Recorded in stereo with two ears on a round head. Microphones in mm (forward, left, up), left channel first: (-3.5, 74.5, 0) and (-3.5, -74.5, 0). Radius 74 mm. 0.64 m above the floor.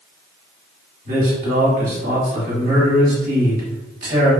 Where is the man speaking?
50° right (ahead or behind), 1.2 m.